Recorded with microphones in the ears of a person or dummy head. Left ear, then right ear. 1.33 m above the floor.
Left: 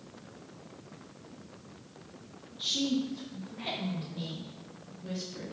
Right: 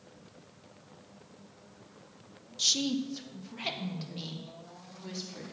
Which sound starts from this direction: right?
A woman speaking, at 2.6 s.